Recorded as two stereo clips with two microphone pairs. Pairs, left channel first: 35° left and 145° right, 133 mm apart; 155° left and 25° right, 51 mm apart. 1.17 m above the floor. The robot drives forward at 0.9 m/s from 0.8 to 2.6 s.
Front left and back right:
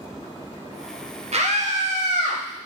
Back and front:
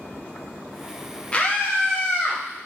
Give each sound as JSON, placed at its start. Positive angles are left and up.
{"t": 1.3, "sound": "a scream", "azimuth_deg": -145, "distance_m": 0.8}